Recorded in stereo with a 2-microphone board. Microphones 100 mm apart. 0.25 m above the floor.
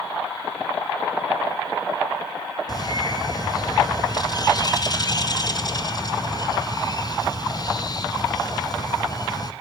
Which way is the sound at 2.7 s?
40° left (ahead or behind).